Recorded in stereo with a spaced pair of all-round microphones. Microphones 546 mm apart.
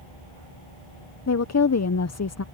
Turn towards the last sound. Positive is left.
turn(degrees=30)  # may be behind; listen again after turning